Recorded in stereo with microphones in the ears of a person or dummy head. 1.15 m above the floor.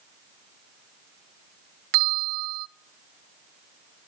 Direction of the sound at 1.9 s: 65° right (ahead or behind).